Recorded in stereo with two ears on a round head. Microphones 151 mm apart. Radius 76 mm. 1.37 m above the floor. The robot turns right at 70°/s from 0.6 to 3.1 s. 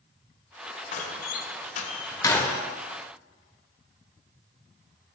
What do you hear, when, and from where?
0.9 s a door slam: 45° left (ahead or behind), 0.6 m; by 2.6 s centre (ahead or behind), 0.6 m